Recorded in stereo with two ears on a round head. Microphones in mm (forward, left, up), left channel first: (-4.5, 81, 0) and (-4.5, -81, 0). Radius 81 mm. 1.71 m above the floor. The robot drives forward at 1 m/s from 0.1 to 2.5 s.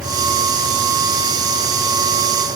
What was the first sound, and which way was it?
Only background noise.